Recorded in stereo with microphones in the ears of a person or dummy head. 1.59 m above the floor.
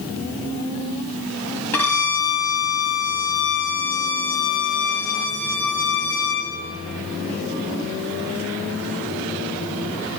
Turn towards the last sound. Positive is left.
turn(degrees=10)  # may be behind; listen again after turning